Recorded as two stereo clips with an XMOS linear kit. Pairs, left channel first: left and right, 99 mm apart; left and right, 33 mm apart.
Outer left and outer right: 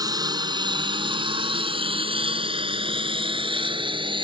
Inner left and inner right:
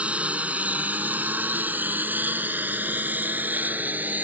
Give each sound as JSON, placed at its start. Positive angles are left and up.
{"t": 0.0, "sound": "a lawn mower", "side_deg": -45}